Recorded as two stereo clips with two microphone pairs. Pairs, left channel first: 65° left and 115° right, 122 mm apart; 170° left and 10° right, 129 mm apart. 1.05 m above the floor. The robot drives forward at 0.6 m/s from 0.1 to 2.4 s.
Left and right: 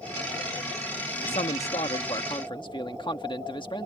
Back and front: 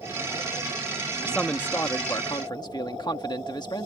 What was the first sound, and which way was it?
A man speaking, 85° left.